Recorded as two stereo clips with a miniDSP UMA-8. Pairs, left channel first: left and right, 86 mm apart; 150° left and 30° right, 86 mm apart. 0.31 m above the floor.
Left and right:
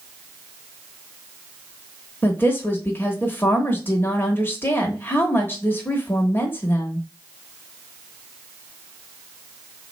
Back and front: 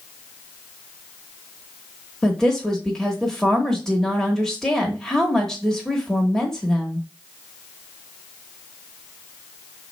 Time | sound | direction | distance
2.2 | a woman speaking | 75° left | 0.9 m